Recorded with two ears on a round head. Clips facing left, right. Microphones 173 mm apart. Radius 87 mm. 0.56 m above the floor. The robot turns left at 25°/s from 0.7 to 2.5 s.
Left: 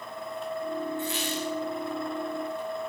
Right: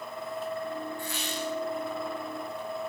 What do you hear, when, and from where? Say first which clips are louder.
1.0 s a squeak: left 3 dB; 25° left (ahead or behind), 9.5 m; by 1.5 s 10° left (ahead or behind), 9.5 m